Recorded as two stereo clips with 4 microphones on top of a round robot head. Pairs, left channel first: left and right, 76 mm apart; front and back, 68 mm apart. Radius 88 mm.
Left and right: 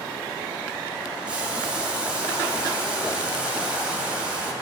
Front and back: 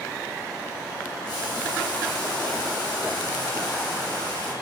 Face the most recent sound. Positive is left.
turn(degrees=-15)